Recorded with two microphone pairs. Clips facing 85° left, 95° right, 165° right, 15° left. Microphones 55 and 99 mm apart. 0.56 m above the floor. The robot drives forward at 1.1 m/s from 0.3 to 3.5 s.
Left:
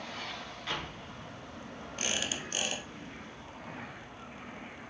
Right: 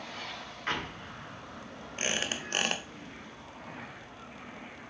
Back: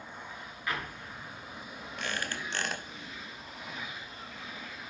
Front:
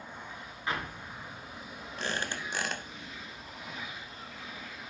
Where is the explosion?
50° right, 1.8 m; by 1.9 s 95° right, 1.4 m.